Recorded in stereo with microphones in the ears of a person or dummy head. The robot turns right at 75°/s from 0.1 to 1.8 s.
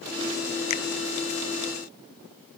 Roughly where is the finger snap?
Left.